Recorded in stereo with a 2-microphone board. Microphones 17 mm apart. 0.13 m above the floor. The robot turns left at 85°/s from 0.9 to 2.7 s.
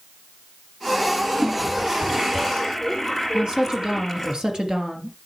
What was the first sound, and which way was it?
A toilet flushing, 65° right.